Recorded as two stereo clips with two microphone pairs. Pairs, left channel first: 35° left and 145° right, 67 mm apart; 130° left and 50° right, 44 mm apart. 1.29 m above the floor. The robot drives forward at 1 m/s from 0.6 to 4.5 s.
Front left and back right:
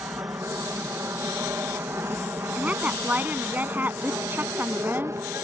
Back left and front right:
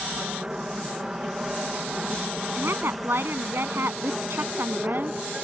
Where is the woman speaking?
75° right; by 5.2 s 85° right.